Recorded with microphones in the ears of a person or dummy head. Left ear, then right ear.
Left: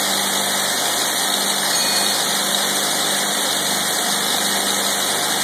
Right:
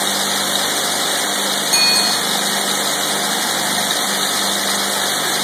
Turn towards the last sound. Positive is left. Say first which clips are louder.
# right 8 dB
turn(degrees=-30)  # may be behind; listen again after turning